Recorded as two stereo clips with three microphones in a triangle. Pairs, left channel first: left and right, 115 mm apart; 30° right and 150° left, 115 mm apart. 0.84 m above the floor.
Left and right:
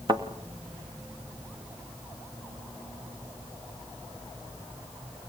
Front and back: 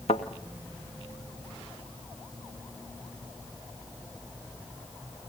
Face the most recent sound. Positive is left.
turn(degrees=-45)